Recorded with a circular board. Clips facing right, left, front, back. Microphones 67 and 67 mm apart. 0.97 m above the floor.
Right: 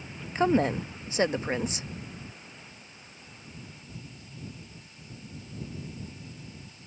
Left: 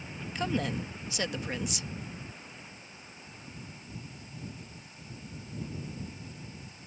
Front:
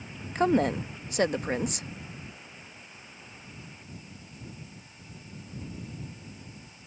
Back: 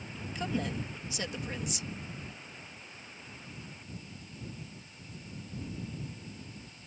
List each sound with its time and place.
0.3 s a woman speaking: 35° right